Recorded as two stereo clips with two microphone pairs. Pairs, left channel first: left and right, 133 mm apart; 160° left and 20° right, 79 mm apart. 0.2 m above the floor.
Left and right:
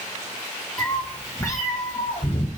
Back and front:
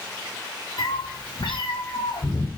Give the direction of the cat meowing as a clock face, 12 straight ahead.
6 o'clock.